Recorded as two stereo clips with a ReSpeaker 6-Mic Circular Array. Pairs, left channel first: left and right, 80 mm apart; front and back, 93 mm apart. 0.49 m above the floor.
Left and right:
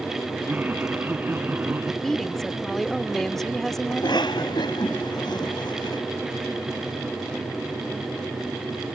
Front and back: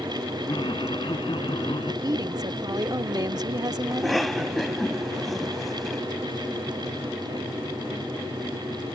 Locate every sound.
0.5 s laughter: 25° right
2.0 s a woman speaking: 175° left
3.9 s a cough: 90° left